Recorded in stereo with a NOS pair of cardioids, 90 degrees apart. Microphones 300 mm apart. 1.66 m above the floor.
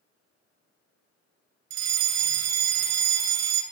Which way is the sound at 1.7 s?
60° right.